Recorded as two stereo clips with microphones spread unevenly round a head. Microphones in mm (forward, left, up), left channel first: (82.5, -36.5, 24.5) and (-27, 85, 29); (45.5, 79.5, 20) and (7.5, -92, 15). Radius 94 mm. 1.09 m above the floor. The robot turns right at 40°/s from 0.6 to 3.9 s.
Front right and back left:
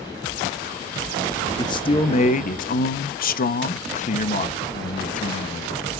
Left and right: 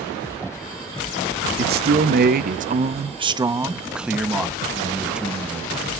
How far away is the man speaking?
About 0.8 m.